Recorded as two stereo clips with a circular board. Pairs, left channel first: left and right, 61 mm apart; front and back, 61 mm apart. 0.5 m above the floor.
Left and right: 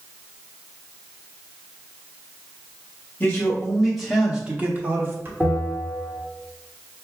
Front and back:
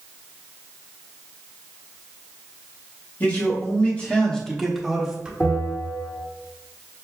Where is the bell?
25° left, 1.7 m.